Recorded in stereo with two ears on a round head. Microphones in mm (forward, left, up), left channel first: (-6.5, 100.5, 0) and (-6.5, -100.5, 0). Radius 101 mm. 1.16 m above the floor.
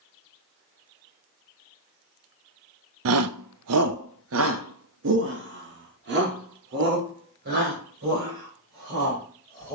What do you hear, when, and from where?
3.0 s a shout: 65° right (ahead or behind), 0.6 m; by 9.8 s 45° right (ahead or behind), 5.5 m